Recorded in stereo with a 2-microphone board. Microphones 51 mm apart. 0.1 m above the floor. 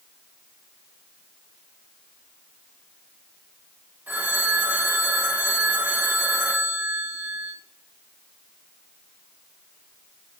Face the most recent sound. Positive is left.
turn(degrees=-35)  # may be behind; listen again after turning